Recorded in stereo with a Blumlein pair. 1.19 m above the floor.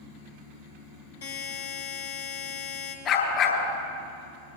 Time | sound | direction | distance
1.2 | a buzzer | 55° left | 3.5 m
3.0 | a dog barking | 30° left | 4 m